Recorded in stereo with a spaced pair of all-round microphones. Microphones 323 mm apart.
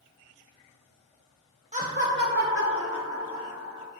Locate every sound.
1.7 s laughter: 25° right (ahead or behind), 0.5 m; by 3.9 s 55° right (ahead or behind), 2 m